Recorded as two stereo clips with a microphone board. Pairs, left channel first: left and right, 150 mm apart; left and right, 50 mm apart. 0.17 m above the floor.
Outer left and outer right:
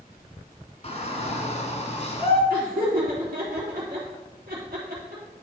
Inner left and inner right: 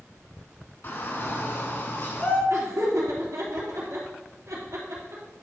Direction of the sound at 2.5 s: 70° right (ahead or behind).